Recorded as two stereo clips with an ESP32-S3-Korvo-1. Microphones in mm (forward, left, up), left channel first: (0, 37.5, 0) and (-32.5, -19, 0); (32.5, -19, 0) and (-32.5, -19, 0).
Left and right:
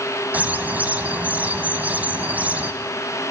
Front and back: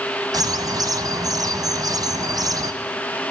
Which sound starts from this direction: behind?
A bird, at 0.3 s.